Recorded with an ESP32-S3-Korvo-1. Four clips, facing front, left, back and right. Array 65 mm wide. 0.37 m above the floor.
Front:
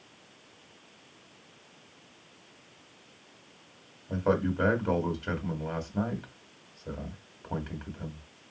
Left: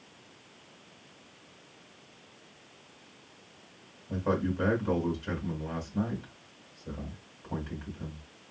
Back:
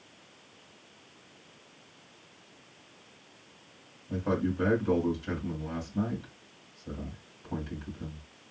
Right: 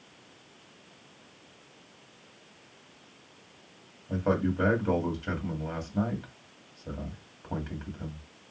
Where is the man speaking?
30° right, 1.9 m.